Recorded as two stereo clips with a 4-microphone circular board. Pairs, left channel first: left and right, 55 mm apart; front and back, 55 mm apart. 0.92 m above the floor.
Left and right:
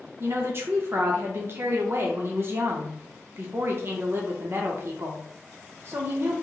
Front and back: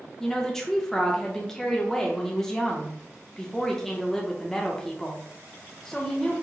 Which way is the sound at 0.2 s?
80° right.